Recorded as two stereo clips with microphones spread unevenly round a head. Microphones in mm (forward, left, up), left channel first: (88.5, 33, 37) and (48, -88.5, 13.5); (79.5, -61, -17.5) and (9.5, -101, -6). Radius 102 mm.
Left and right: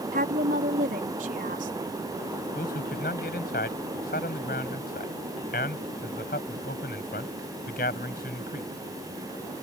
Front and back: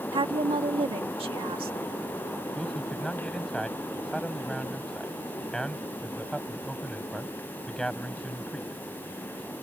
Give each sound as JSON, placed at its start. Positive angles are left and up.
{"t": 0.1, "sound": "a woman speaking", "azimuth_deg": -155}
{"t": 2.5, "sound": "a man speaking", "azimuth_deg": 120}